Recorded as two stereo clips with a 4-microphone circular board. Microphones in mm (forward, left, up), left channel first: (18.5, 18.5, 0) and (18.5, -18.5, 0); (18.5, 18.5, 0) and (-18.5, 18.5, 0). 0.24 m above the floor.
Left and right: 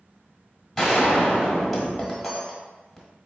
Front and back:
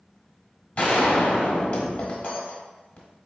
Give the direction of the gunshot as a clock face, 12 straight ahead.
12 o'clock.